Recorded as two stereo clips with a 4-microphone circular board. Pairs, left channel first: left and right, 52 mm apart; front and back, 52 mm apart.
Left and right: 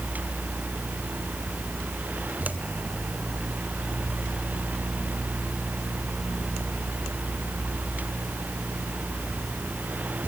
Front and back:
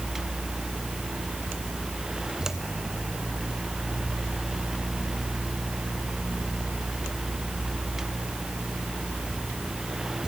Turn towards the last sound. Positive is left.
No sound to turn to.